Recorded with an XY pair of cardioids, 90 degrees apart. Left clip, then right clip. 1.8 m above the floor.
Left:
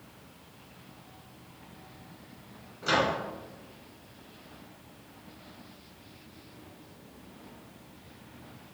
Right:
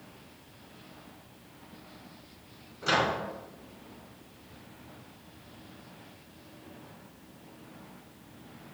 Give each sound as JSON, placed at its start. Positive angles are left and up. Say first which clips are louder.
{"t": 2.8, "sound": "a microwave", "louder": "even", "azimuth_deg": -20, "distance_m": 1.6}